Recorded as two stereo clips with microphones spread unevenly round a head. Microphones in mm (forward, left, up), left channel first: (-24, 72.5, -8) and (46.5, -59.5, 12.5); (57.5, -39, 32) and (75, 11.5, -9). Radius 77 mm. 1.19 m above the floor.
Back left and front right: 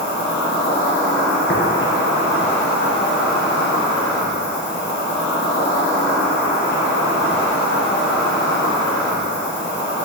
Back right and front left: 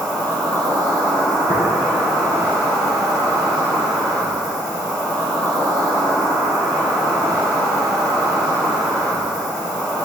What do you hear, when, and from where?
0.0 s an insect: 110° left, 2.5 m
1.5 s tapping: 125° left, 2.5 m